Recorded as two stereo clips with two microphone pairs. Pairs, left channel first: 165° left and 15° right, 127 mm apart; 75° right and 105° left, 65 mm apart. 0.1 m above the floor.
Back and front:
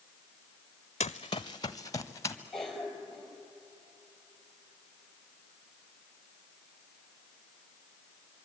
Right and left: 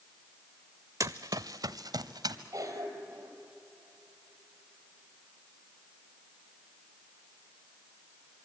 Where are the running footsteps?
130° left, 0.6 m; by 2.4 s 100° left, 1.6 m.